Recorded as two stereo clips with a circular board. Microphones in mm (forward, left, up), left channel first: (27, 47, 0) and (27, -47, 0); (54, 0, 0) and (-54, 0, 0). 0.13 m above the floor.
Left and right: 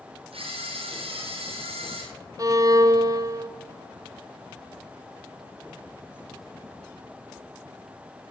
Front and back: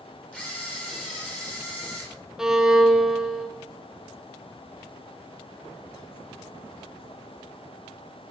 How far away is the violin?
About 0.8 m.